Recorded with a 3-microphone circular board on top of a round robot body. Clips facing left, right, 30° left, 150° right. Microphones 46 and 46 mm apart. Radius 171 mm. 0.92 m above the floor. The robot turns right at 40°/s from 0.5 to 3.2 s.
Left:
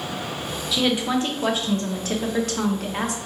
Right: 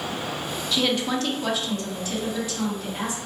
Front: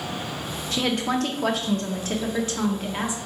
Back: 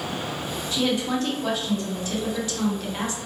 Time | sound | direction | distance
0.7 | a woman speaking | 5° left | 1.0 m